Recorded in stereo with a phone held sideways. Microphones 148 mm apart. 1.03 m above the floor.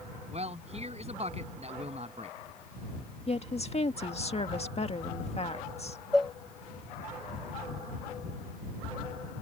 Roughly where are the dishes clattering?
Centre.